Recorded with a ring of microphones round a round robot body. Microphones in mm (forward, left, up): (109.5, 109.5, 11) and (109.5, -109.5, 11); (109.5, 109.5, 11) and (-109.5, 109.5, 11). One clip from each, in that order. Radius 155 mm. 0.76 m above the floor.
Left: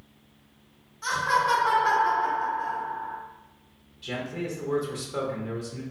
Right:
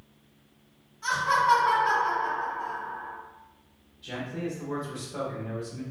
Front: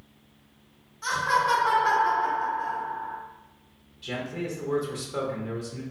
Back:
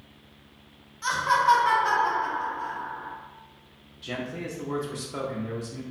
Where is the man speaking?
105° left, 0.9 m.